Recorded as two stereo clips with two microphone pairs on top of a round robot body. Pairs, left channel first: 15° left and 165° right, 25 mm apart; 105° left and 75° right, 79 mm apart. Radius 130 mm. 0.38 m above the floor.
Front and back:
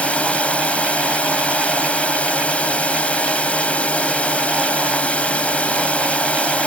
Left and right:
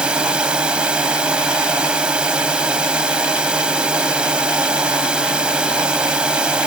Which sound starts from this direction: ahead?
A drone, at 0.0 s.